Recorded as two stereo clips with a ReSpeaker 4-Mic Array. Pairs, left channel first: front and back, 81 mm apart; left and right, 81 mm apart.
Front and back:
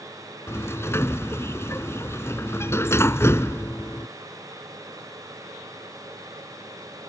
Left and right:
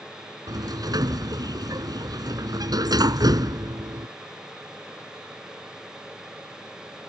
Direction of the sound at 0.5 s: 55° right.